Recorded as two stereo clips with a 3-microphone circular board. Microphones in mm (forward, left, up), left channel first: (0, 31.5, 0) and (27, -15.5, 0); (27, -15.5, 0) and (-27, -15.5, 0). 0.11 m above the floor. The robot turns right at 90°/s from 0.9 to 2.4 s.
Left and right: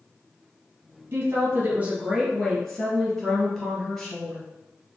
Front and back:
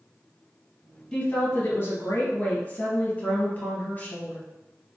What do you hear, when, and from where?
1.1 s a woman speaking: 75° right, 1.6 m; by 4.4 s 40° left, 1.6 m